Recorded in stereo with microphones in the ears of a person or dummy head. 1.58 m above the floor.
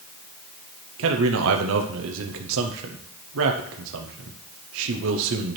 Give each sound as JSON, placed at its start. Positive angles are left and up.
{"t": 1.0, "sound": "a man speaking", "side_deg": -70, "distance_m": 0.6}